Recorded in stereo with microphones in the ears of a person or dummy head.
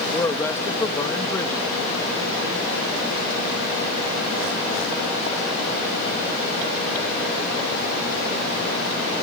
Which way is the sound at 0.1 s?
20° left (ahead or behind).